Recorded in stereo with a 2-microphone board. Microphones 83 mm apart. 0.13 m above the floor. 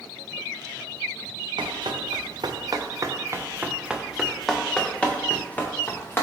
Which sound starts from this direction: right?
Running footsteps, at 1.6 s.